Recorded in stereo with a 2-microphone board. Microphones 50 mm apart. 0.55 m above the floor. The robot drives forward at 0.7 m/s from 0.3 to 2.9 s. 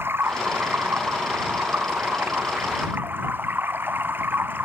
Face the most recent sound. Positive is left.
turn(degrees=-45)  # may be behind; listen again after turning